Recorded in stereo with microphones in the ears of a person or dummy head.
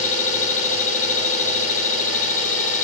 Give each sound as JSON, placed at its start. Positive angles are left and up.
{"t": 0.0, "sound": "an engine running", "side_deg": 40, "distance_m": 10.0}